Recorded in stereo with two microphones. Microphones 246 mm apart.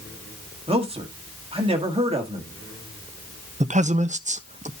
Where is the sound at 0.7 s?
25° right (ahead or behind), 1.7 m.